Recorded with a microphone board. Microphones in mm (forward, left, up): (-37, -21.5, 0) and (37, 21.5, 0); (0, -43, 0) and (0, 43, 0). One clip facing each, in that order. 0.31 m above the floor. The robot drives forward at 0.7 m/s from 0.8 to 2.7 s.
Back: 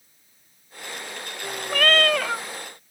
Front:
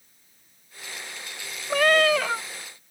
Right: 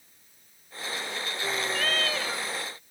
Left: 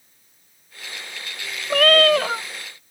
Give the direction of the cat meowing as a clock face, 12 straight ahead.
9 o'clock.